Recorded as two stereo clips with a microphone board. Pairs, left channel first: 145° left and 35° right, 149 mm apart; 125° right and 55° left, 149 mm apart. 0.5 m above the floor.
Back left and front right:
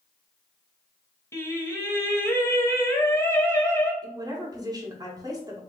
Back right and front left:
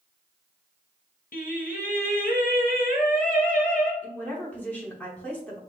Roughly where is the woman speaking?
Ahead right.